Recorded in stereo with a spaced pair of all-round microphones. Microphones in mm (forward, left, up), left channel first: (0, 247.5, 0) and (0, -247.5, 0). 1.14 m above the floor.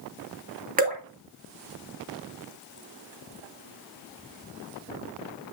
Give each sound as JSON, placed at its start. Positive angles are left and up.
{"t": 0.8, "sound": "dripping", "side_deg": -15, "distance_m": 2.0}